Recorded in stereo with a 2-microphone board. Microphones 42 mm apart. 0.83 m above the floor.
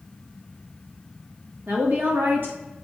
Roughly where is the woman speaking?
Right.